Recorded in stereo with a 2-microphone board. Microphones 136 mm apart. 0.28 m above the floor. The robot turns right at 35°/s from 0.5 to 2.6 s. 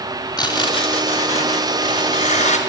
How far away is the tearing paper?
About 2.5 m.